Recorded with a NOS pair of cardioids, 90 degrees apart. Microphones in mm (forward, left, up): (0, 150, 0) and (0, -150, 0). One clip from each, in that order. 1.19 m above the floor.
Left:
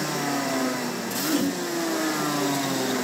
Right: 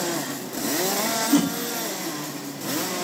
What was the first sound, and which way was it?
A whoosh, 50° right.